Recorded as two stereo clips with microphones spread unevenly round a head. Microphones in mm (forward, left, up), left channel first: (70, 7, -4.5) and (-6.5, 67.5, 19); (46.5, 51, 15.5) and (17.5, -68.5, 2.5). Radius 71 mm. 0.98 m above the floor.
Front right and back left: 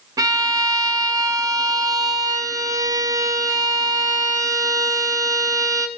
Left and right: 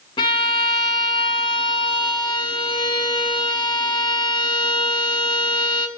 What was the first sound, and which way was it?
A violin, 120° left.